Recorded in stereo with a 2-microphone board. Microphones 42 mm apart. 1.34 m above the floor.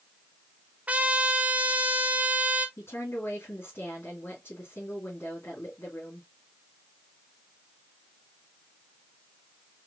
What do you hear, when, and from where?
0.9 s a trumpet: 35° right (ahead or behind), 0.7 m
2.8 s a woman speaking: 75° left (ahead or behind), 2 m